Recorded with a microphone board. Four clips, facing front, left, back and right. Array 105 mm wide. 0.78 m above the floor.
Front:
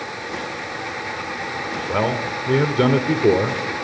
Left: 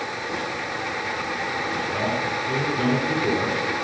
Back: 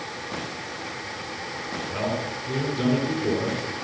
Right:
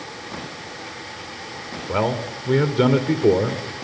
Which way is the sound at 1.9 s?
40° right.